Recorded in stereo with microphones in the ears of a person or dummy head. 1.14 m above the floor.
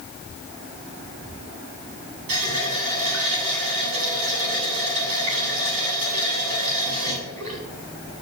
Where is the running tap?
80° right, 3.5 m.